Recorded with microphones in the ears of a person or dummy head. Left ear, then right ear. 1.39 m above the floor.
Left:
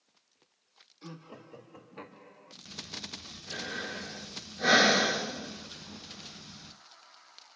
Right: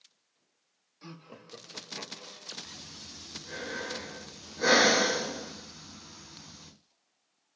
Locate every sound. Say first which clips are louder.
1.0 s laughter: left 1 dB; 20° right (ahead or behind), 2.5 m
2.6 s breathing: left 4 dB; 70° right (ahead or behind), 5 m